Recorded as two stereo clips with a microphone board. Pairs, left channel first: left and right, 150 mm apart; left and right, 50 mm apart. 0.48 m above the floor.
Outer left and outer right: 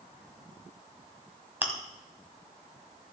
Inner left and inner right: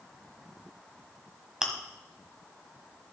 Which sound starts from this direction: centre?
Chewing, at 1.6 s.